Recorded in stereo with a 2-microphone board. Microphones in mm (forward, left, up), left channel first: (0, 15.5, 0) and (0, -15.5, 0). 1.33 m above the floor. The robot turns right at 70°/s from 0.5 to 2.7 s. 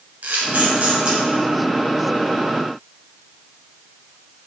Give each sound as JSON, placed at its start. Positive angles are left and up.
{"t": 0.2, "sound": "a camera shutter", "side_deg": -60, "distance_m": 2.0}